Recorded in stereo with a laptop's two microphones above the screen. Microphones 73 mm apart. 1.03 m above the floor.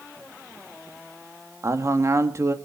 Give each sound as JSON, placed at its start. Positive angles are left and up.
{"t": 1.6, "sound": "a man speaking", "side_deg": -40, "distance_m": 1.9}